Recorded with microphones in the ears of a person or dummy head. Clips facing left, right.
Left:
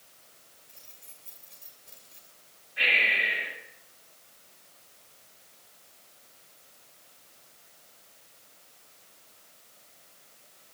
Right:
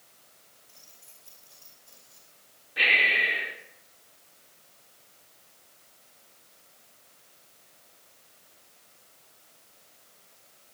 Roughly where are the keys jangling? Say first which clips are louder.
Left 1 dB; left.